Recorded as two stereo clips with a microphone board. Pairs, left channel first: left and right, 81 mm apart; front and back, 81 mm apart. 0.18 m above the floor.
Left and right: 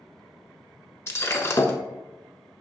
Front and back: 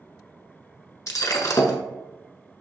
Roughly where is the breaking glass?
Ahead left.